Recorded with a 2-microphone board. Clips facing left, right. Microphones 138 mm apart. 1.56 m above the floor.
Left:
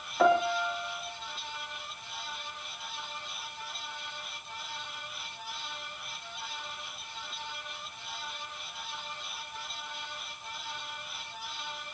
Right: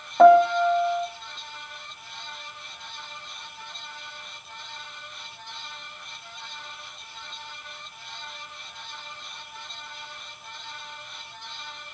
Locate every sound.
0.2 s a piano: 50° right (ahead or behind), 4 m